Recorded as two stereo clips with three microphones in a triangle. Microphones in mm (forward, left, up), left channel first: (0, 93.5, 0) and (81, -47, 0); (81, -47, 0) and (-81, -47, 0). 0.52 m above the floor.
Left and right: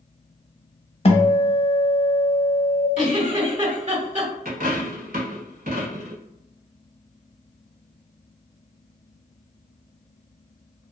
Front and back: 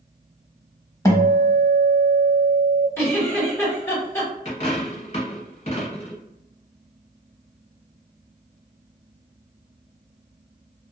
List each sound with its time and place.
1.1 s a guitar: 65° left, 0.6 m
3.0 s a giggle: 70° right, 1.6 m
4.5 s a dropped coin: 45° right, 0.8 m